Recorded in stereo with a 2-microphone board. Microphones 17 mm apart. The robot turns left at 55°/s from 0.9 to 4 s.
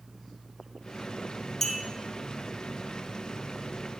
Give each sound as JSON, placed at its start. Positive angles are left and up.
{"t": 1.6, "sound": "a clink", "side_deg": 15, "distance_m": 1.5}